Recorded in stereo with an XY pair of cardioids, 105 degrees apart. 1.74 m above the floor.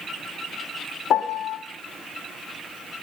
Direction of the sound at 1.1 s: 65° left.